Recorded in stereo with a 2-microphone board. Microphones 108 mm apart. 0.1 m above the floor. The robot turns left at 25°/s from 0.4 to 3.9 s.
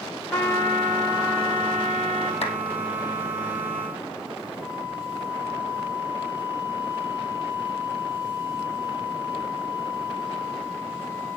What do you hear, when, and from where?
0.3 s a trumpet: 165° left, 7.5 m; by 2.3 s 120° left, 7.5 m
2.4 s a clap: 65° left (ahead or behind), 3 m
4.6 s a flute: 15° left (ahead or behind), 2.5 m